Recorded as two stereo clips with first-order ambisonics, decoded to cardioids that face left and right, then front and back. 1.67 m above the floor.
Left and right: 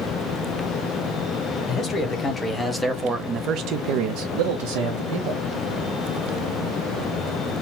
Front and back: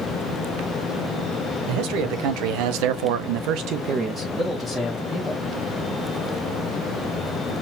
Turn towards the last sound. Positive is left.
turn(degrees=-75)